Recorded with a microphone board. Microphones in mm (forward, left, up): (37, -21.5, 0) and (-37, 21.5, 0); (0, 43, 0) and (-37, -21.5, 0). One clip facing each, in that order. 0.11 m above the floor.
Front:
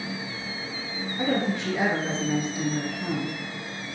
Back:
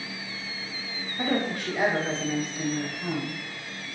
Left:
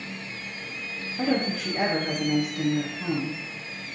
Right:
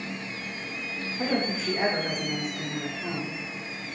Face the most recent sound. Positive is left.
turn(degrees=40)